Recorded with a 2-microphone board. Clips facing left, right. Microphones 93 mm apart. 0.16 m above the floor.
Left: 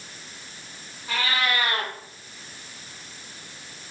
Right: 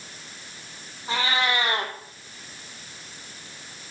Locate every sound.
1.1 s a cat meowing: 25° right (ahead or behind), 1.5 m